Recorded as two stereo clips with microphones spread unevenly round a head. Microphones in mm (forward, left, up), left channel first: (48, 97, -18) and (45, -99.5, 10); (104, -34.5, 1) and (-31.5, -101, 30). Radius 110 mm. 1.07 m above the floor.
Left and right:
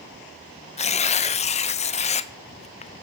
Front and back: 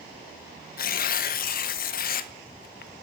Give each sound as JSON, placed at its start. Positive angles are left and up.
{"t": 0.8, "sound": "tearing paper", "azimuth_deg": 35, "distance_m": 0.6}